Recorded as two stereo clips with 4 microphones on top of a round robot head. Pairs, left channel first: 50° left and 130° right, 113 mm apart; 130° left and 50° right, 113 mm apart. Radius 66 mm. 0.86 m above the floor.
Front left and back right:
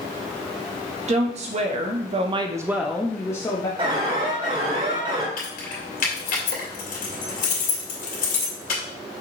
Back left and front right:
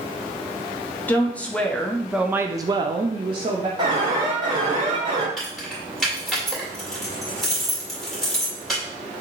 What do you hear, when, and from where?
1.1 s a woman speaking: 155° right, 1.2 m; by 3.7 s 5° right, 0.9 m
3.8 s an alarm: 95° right, 3 m
5.4 s keys jangling: 40° left, 2 m